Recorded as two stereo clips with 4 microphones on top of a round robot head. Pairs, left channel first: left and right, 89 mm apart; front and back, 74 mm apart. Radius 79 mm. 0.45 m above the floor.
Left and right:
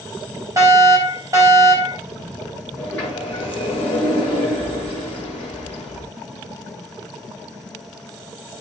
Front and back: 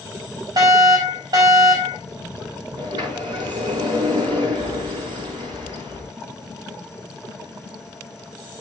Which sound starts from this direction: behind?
A sliding door, at 2.8 s.